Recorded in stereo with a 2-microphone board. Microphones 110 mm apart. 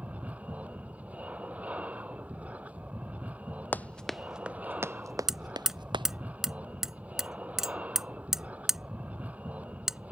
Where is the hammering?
5° right (ahead or behind).